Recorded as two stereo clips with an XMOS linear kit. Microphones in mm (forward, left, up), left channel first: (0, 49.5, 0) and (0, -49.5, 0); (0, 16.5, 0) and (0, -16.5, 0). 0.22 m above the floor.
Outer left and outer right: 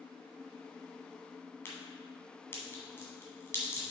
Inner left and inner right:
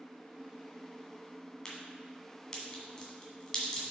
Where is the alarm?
No alarm in this recording.